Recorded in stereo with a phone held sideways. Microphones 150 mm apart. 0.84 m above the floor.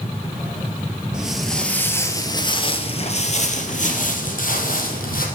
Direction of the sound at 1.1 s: 5° right (ahead or behind).